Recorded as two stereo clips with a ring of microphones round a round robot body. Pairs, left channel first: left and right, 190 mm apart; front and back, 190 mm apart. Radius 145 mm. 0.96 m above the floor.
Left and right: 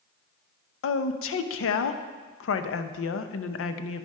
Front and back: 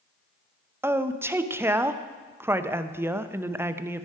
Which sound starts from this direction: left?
A woman speaking, at 0.8 s.